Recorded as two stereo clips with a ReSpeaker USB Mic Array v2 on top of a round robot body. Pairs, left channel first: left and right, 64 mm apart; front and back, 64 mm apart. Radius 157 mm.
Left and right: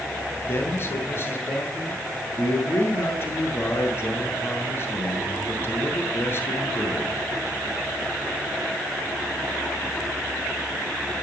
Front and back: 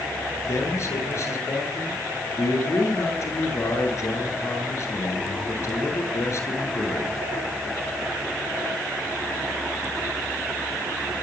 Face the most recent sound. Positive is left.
turn(degrees=40)